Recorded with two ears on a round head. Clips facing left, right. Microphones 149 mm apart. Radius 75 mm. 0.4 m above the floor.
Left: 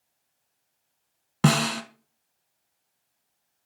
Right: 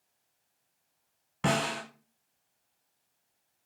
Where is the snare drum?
70° left (ahead or behind), 0.8 m.